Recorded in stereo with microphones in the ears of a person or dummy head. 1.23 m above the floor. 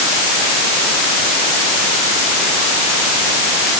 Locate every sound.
Only background noise.